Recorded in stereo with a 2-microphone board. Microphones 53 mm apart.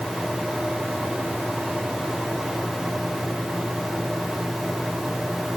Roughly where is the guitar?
No guitar in this recording.